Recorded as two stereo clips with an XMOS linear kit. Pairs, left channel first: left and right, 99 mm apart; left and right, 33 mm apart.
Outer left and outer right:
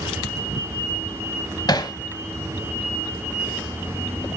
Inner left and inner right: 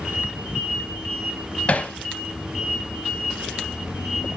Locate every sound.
1.7 s hammering: 45° left (ahead or behind), 1.0 m